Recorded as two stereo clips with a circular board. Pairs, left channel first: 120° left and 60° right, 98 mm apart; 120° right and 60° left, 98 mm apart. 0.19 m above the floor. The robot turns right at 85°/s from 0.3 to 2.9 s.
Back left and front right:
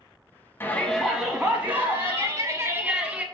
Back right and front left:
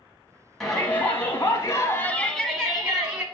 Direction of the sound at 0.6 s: 155° left.